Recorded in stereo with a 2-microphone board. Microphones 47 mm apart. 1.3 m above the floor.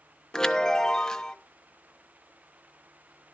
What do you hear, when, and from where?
0.3 s a chime: 15° left (ahead or behind), 0.9 m